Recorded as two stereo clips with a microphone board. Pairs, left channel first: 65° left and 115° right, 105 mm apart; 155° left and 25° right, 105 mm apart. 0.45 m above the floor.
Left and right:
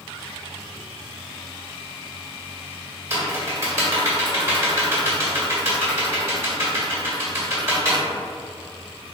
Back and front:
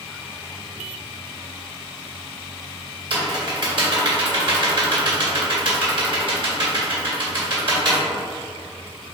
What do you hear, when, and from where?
3.1 s typing on a keyboard: 55° right, 1.5 m